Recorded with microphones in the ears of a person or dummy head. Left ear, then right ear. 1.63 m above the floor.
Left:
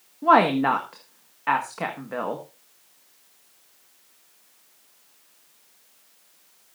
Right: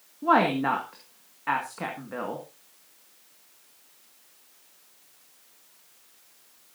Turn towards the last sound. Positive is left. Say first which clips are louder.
# left 5 dB
turn(degrees=20)  # may be behind; listen again after turning